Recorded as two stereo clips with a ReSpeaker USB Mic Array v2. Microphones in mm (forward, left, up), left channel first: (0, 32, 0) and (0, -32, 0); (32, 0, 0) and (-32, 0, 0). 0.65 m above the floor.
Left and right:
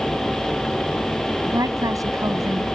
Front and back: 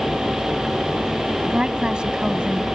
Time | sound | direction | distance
1.4 | a woman speaking | 105° right | ?